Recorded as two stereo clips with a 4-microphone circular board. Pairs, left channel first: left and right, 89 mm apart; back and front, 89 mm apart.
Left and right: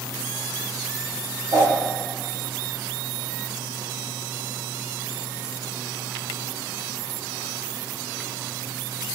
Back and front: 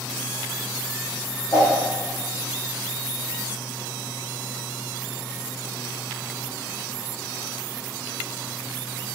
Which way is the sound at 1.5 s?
125° right.